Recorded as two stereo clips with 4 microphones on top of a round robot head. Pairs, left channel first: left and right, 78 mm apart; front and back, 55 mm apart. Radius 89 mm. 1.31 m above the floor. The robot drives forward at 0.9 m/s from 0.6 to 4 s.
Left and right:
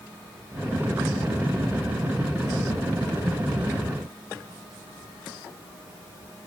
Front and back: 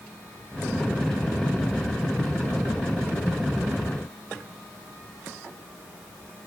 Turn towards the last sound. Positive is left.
No sound to turn to.